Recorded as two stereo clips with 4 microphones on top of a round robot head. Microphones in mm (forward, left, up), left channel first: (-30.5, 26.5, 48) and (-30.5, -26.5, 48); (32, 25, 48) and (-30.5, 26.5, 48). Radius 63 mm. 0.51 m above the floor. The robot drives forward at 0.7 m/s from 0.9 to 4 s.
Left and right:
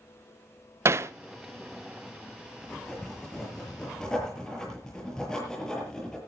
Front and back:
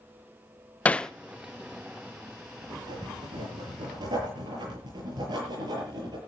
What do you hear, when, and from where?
0.8 s hammering: 65° right, 0.7 m; by 1.1 s 80° right, 0.7 m
2.6 s writing: 170° left, 7 m